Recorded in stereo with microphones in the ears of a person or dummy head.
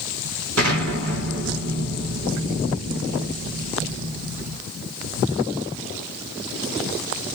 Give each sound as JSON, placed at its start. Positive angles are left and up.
{"t": 0.6, "sound": "an explosion", "side_deg": -65, "distance_m": 2.5}